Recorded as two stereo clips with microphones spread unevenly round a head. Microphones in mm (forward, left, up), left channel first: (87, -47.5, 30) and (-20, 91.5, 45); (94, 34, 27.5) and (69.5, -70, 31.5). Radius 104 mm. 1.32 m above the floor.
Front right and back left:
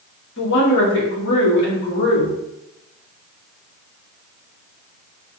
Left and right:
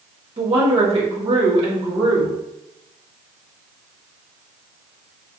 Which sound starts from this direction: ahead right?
A woman speaking, at 0.4 s.